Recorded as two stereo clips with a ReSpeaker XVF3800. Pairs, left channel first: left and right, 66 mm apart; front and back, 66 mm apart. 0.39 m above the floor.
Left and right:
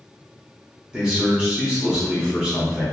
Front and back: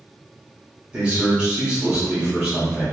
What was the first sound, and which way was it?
A man speaking, 140° right.